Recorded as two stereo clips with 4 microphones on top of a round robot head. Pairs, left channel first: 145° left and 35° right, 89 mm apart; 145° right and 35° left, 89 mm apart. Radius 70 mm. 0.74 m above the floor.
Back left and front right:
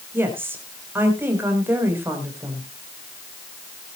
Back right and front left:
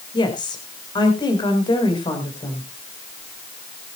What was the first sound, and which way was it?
A woman speaking, 100° right.